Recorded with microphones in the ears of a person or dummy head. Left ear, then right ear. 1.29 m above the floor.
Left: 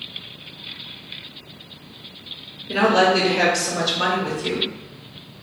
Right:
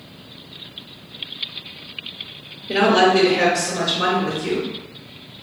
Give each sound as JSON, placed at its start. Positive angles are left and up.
{"t": 2.7, "sound": "a woman speaking", "side_deg": -20, "distance_m": 0.8}